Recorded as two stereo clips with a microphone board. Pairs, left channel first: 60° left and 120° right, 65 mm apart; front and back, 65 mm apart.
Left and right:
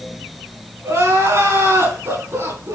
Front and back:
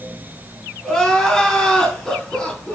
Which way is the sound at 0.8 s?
85° right.